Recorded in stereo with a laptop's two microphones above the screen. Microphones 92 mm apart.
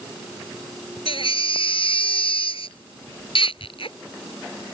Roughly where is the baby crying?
Left.